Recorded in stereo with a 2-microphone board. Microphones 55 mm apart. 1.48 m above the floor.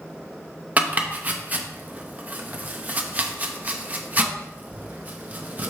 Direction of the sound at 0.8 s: 30° right (ahead or behind).